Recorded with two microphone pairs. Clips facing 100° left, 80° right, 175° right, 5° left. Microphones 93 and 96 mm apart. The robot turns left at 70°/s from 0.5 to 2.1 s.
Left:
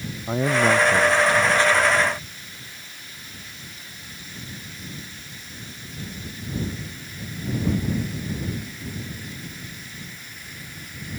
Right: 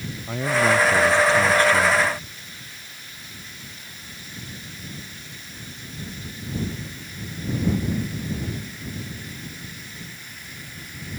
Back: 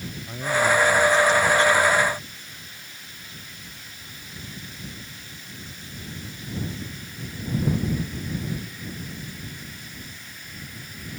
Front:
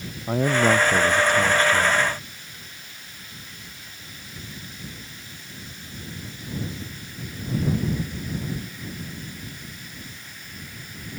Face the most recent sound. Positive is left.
turn(degrees=-75)